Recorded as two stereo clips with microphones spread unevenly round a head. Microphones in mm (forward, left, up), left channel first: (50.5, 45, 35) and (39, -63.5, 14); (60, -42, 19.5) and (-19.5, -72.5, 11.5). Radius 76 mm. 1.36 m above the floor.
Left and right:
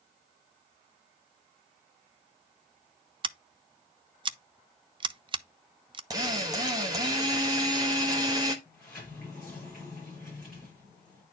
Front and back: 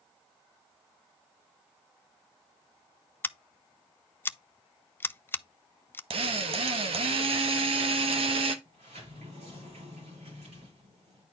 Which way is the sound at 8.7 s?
170° left.